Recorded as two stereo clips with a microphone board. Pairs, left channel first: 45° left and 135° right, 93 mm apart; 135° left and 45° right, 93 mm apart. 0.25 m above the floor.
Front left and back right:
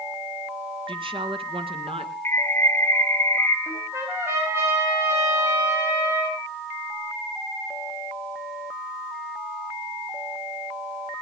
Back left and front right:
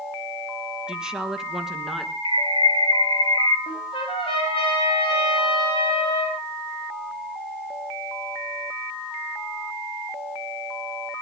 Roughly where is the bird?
Ahead.